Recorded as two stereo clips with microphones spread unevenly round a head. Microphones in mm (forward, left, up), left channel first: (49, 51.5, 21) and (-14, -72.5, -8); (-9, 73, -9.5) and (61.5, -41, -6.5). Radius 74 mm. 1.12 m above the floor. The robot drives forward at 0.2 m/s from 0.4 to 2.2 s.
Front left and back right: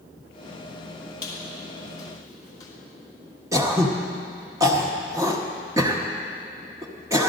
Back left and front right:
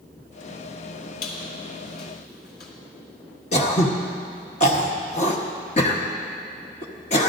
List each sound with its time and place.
1.2 s a squeak: 125° left, 3 m
3.5 s throat clearing: 170° left, 1.2 m